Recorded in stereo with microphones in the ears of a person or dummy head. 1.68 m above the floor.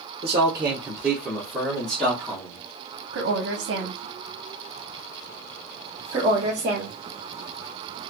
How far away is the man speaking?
About 0.9 m.